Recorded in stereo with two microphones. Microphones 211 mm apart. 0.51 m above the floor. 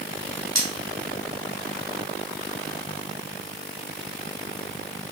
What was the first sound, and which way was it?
Cutlery clinking, 75° right (ahead or behind).